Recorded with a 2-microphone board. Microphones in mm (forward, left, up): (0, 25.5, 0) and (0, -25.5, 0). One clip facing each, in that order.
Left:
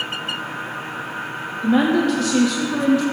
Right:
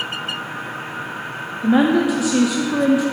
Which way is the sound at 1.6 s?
15° right (ahead or behind).